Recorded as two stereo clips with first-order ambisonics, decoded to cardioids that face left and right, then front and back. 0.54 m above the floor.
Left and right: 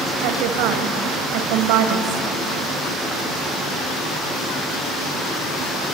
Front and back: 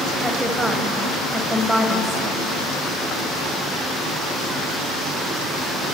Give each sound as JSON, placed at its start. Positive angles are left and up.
{"t": 0.2, "sound": "a woman speaking", "azimuth_deg": -95, "distance_m": 2.5}